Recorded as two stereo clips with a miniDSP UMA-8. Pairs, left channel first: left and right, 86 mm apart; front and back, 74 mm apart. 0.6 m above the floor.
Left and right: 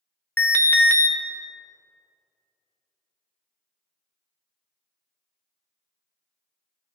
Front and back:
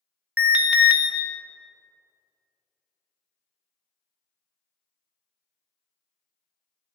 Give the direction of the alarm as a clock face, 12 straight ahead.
8 o'clock.